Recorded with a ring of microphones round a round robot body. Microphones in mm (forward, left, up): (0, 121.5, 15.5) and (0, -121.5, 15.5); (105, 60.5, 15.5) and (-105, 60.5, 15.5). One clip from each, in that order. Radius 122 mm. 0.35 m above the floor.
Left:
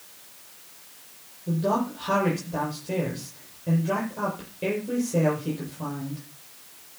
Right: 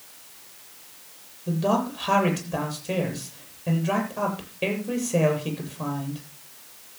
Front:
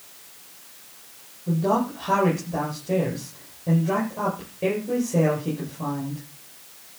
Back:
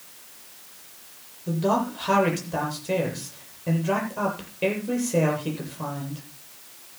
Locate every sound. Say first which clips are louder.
1.5 s a man speaking: right 1 dB, front 1 dB; 140° right, 8 m